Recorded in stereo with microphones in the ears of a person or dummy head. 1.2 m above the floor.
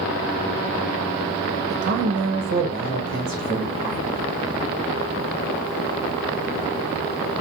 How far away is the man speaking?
About 0.8 m.